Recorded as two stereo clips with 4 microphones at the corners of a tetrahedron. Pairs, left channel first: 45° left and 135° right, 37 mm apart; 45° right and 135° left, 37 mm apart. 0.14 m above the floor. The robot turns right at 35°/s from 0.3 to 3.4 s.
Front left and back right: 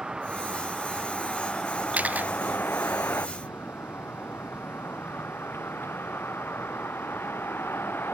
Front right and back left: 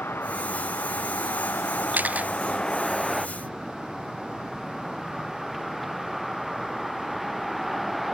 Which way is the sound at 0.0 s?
60° right.